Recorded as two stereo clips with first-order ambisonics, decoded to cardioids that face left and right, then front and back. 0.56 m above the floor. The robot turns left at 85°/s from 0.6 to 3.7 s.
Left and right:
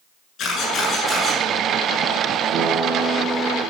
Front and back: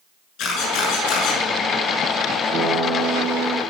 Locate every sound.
0.4 s a camera shutter: 35° left, 7 m; by 1.4 s 30° right, 7 m
2.5 s a guitar: 125° right, 7 m; by 3.6 s 140° left, 7 m